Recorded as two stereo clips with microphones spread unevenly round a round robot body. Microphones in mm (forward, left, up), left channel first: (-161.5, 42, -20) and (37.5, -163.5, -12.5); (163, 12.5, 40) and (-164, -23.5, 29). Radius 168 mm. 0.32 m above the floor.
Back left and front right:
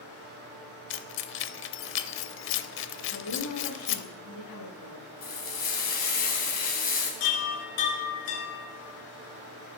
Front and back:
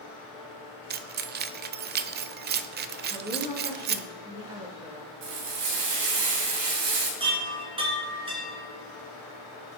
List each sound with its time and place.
0.9 s keys jangling: 145° left, 0.6 m
3.1 s a woman speaking: 110° left, 4.5 m
5.2 s frying: 170° right, 3 m
7.2 s a chime: 110° left, 3 m